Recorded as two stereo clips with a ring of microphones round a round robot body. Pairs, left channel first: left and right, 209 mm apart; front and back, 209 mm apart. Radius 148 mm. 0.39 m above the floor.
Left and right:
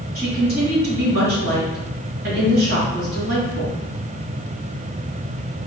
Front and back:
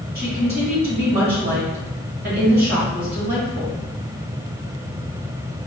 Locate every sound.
0.1 s a woman speaking: 135° right, 1.4 m